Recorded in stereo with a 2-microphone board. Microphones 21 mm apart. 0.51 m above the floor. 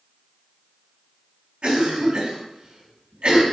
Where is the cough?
50° right (ahead or behind), 3.5 m.